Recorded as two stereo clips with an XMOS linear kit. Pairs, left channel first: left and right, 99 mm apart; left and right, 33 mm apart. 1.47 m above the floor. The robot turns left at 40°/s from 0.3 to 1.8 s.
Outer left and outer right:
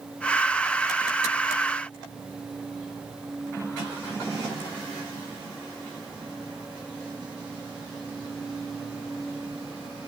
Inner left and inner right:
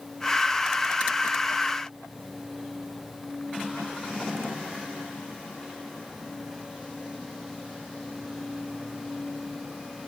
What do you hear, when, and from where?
Only background noise.